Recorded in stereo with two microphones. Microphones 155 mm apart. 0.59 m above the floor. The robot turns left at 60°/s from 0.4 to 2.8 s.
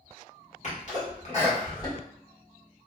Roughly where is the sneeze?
Left.